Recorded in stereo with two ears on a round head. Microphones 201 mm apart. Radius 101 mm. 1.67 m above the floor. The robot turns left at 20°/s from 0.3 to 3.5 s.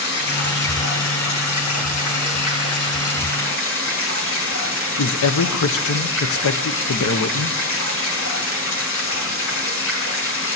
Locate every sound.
0.0 s running water: 130° left, 5.5 m; by 10.6 s 65° left, 5.5 m
5.0 s a man speaking: 70° left (ahead or behind), 0.8 m